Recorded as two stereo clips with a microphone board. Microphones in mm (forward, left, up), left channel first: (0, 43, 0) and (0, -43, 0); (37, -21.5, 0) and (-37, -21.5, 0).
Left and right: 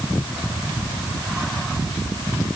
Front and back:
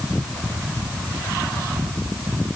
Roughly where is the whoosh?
I don't hear a whoosh.